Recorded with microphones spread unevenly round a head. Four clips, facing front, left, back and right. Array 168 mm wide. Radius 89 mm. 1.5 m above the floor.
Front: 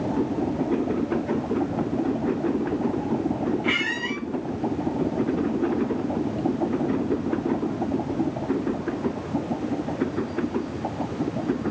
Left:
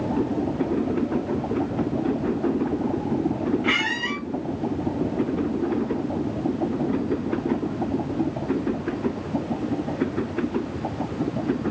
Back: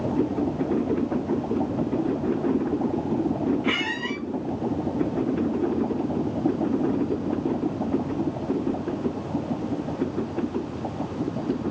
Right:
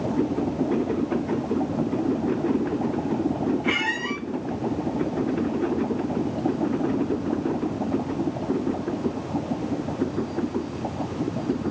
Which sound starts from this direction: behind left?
A squeak, at 3.6 s.